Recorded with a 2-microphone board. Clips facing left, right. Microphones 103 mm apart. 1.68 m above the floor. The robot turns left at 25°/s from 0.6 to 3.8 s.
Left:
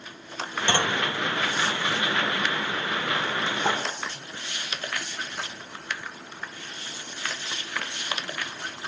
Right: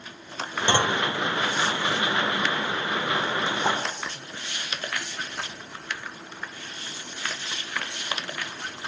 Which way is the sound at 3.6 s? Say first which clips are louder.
Even; 10° right (ahead or behind).